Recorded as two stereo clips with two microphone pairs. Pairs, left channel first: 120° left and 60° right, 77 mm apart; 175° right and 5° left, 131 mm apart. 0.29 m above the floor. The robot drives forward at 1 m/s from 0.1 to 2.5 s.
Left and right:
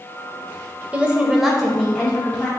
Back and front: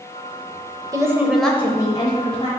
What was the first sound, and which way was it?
A woman speaking, 10° right.